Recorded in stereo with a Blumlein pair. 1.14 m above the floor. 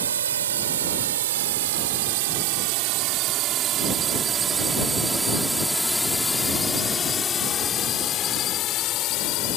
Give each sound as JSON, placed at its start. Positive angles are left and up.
{"t": 0.0, "sound": "a drone", "azimuth_deg": -65}